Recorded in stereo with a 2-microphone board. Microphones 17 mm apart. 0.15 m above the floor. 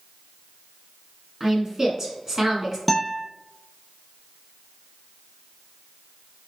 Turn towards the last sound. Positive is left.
turn(degrees=10)  # may be behind; listen again after turning